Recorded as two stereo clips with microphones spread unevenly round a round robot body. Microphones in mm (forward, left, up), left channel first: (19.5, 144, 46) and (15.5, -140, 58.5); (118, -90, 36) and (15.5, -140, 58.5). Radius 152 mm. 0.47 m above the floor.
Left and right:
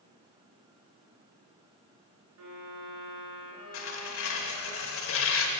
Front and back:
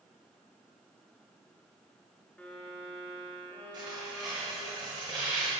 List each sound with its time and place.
2.4 s a violin: 55° right, 3 m
3.7 s tearing paper: 135° left, 1.0 m